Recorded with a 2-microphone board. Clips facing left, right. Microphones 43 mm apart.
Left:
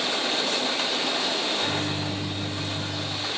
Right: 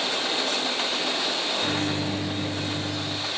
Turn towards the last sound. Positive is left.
turn(degrees=-55)  # may be behind; listen again after turning